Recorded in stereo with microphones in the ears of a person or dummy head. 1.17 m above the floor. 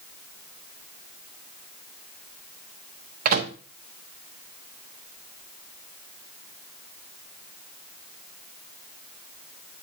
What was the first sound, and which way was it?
A microwave, 45° right (ahead or behind).